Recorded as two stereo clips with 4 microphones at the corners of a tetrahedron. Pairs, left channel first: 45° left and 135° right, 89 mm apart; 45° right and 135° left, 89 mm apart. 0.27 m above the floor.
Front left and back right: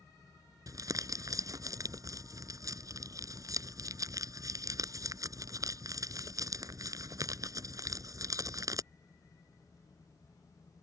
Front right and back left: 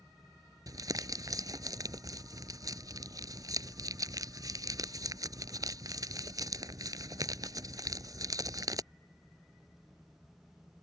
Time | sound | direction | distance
0.7 | crumpling | 175° left | ?